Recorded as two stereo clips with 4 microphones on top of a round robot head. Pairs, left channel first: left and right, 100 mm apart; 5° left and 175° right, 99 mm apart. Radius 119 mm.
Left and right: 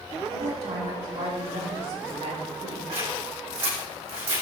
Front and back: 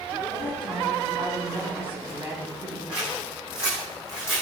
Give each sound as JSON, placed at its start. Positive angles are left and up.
{"t": 0.3, "sound": "a woman speaking", "azimuth_deg": -105, "distance_m": 4.0}
{"t": 2.9, "sound": "scissors", "azimuth_deg": -90, "distance_m": 6.0}